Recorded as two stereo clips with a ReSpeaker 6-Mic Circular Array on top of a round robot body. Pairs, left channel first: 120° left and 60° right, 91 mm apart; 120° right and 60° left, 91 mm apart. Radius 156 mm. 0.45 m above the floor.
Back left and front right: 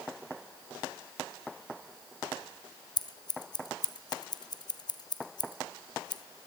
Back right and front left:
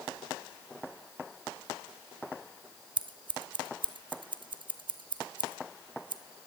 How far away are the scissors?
About 1.3 m.